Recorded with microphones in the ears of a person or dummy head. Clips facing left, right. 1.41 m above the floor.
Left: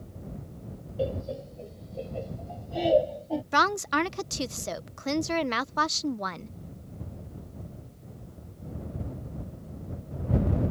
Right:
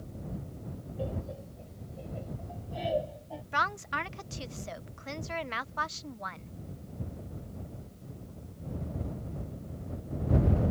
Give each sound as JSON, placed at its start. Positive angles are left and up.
{"t": 1.0, "sound": "laughter", "side_deg": 75}
{"t": 3.5, "sound": "a woman speaking", "side_deg": 65}